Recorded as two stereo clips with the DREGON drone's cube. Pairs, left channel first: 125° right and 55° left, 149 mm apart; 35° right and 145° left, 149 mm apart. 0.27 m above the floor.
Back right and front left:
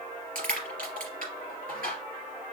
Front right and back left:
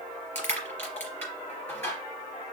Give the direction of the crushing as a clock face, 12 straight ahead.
10 o'clock.